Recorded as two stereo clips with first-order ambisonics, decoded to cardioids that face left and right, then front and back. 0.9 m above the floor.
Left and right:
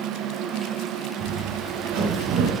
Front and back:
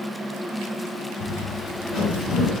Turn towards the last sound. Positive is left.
turn(degrees=-70)